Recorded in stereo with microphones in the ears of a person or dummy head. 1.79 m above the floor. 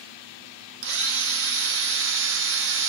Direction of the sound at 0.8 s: 65° right (ahead or behind).